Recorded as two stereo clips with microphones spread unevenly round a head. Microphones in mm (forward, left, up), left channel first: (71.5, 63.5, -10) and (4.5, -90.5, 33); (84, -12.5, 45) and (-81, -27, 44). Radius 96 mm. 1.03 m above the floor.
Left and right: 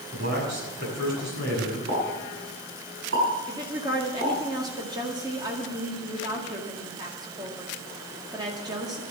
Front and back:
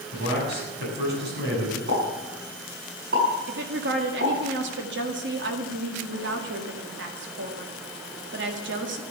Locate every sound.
0.1 s a man speaking: 155° right, 7 m
1.9 s a pop: 145° right, 7 m
3.5 s a woman speaking: 175° left, 1.9 m